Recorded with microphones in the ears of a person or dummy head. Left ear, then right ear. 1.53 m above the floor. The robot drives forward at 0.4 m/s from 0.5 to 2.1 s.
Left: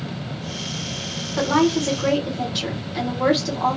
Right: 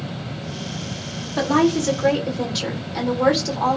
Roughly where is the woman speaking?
Centre.